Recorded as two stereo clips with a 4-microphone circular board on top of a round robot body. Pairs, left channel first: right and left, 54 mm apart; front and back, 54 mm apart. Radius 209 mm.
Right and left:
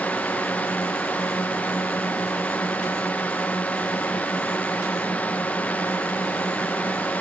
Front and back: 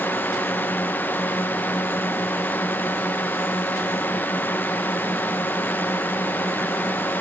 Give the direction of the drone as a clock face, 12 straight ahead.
1 o'clock.